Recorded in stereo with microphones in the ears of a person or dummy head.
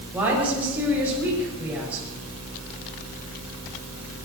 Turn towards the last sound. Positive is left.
turn(degrees=-10)  # may be behind; listen again after turning